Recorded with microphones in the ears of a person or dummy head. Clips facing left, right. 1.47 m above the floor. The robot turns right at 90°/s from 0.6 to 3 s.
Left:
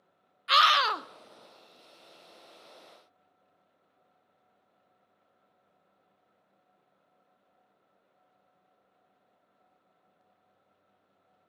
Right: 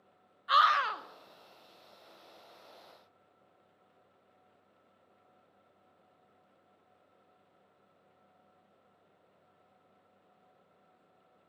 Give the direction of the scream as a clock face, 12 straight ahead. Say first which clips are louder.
Left 3 dB; 11 o'clock.